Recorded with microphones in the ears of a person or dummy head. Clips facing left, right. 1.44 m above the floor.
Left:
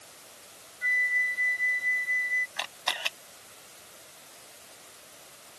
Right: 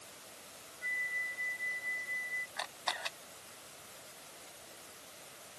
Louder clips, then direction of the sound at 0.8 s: Left 11 dB; 80° left.